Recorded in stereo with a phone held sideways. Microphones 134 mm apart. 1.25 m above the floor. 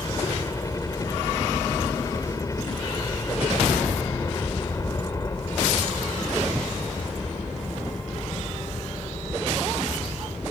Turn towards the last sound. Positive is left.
turn(degrees=25)  # may be behind; listen again after turning